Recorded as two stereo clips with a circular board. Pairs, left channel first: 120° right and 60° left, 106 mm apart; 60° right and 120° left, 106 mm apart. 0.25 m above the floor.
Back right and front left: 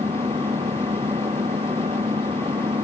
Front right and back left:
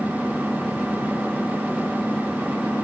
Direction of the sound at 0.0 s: 35° left.